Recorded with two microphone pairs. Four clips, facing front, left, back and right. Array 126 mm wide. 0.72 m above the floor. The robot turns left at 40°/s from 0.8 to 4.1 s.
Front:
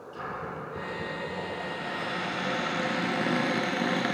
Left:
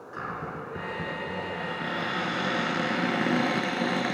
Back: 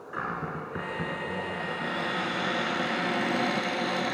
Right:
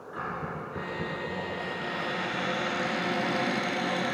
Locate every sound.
0.1 s a cupboard door: 165° left, 2.5 m; by 4.2 s 35° left, 2.5 m